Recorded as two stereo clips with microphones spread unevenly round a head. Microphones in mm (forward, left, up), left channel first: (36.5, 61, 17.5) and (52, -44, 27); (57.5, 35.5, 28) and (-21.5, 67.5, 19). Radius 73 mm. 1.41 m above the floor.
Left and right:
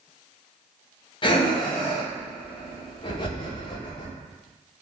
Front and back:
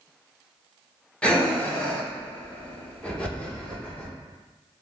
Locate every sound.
1.2 s breathing: 55° left, 0.7 m